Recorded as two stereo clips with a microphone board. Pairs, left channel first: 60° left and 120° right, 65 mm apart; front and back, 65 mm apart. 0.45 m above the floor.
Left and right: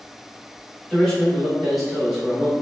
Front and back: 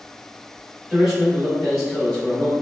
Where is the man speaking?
120° left, 1.2 m; by 2.5 s 60° right, 1.2 m.